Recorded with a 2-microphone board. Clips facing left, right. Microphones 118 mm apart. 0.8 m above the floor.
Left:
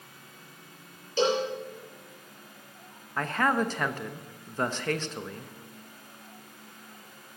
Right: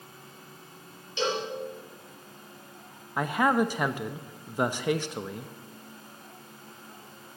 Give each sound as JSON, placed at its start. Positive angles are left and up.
{"t": 1.2, "sound": "a cowbell", "side_deg": 35, "distance_m": 4.5}
{"t": 3.2, "sound": "a man speaking", "side_deg": -10, "distance_m": 0.7}